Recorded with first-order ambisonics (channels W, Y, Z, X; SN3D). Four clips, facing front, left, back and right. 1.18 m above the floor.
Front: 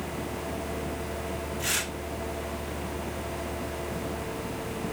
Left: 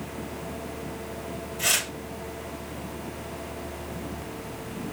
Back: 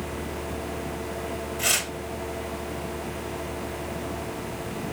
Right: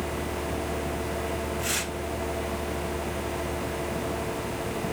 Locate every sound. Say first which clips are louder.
1.6 s tearing paper: left 8 dB, back 5 dB; 150° left, 6.5 m